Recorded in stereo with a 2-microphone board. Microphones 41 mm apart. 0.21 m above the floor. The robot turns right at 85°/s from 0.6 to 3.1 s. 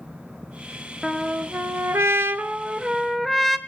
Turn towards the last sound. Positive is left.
turn(degrees=5)